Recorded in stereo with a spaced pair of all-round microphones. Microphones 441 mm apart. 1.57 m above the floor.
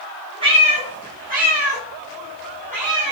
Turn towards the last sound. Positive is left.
turn(degrees=-15)  # may be behind; listen again after turning